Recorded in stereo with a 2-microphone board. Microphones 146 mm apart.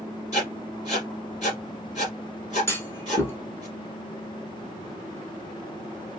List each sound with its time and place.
0.3 s writing: 50° left (ahead or behind), 3.5 m
2.7 s a clunk: 15° left (ahead or behind), 1.2 m